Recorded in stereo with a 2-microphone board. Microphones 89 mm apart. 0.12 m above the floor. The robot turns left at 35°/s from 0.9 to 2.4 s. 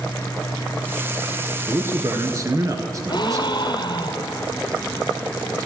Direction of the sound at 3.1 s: 60° left (ahead or behind).